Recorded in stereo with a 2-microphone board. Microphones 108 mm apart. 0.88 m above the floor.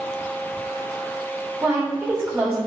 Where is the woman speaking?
20° right (ahead or behind), 2.5 m.